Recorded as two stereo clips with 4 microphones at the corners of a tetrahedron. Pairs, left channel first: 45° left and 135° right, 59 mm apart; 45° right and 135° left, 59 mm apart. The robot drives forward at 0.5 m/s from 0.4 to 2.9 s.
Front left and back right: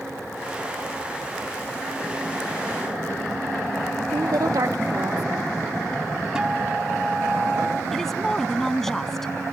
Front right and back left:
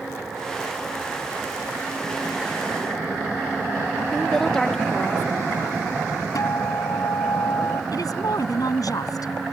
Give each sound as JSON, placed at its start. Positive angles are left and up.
{"t": 4.1, "sound": "a woman speaking", "azimuth_deg": -125}
{"t": 6.3, "sound": "a guitar", "azimuth_deg": -60}
{"t": 7.9, "sound": "a woman speaking", "azimuth_deg": -40}